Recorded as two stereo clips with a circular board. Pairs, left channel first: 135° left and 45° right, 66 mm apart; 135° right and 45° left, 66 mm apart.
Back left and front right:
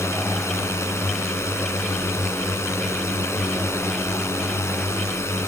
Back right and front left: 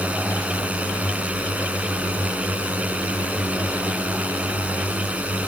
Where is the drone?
110° left.